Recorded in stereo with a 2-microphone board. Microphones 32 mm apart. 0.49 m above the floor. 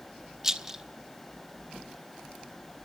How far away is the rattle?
About 1.2 m.